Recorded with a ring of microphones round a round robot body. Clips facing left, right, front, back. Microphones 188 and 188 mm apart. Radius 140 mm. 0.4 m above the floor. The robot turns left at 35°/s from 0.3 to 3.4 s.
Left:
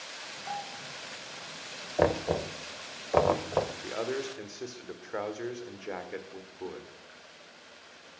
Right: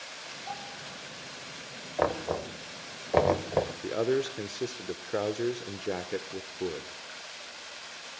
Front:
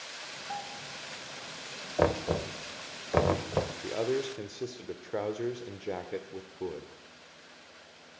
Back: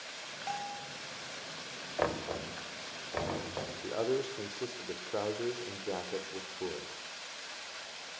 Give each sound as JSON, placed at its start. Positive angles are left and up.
{"t": 0.5, "sound": "a bell", "azimuth_deg": 180, "distance_m": 3.0}
{"t": 2.0, "sound": "knocking", "azimuth_deg": 35, "distance_m": 1.7}
{"t": 3.8, "sound": "a man speaking", "azimuth_deg": -75, "distance_m": 1.6}